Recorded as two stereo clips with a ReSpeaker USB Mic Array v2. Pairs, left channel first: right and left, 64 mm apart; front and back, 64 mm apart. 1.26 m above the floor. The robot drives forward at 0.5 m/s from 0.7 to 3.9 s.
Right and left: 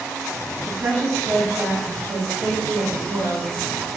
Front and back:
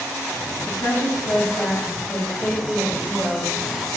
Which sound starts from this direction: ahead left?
A woman speaking, at 0.7 s.